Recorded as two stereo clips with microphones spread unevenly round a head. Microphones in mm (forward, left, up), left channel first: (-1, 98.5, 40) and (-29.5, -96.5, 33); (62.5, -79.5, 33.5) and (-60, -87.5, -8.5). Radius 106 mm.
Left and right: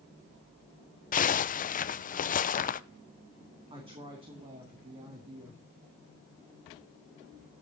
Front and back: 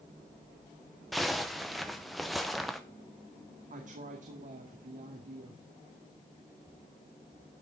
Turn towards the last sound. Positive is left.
turn(degrees=-165)